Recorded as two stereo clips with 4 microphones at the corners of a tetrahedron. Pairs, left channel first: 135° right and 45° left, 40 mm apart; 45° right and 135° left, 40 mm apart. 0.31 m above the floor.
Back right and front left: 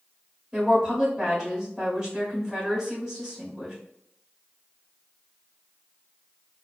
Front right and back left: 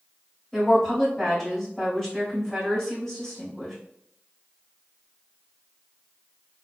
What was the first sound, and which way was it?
A woman speaking, 5° left.